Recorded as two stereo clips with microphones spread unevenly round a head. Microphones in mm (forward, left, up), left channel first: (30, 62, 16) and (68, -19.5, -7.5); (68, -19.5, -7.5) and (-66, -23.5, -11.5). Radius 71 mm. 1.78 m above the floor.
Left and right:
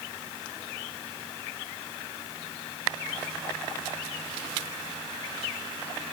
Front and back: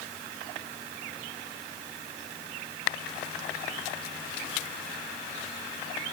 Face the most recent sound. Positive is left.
No sound to turn to.